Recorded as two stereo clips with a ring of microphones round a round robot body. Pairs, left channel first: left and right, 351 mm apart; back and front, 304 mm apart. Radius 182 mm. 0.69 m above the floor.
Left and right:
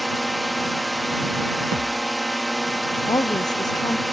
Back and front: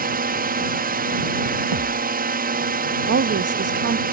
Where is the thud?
30° right.